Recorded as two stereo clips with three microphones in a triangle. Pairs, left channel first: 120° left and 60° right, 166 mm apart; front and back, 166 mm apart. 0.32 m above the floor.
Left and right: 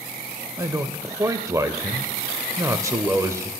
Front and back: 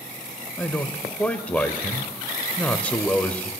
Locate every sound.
0.6 s a man speaking: 60° right, 0.8 m